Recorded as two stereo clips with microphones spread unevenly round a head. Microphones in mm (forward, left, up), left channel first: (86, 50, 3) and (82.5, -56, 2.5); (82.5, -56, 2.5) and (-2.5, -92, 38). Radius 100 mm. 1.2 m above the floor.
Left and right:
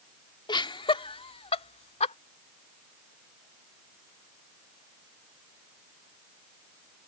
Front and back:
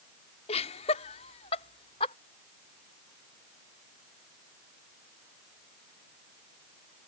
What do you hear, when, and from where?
0.5 s laughter: 45° left; by 2.1 s 75° left